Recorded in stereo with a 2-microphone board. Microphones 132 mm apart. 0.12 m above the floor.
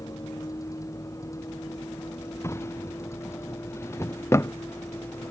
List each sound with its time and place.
0.0 s a vehicle: 25° left (ahead or behind); by 5.3 s 20° left (ahead or behind)
2.4 s a drawer: 20° left (ahead or behind)